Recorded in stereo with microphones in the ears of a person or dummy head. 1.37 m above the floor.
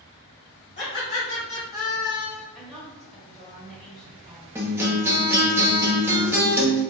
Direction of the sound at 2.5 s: Centre (ahead or behind).